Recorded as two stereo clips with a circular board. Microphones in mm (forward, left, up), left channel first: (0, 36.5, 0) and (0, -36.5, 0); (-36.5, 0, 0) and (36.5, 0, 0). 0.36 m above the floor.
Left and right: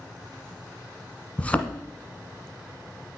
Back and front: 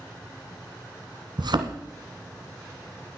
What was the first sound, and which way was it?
A thud, 15° left.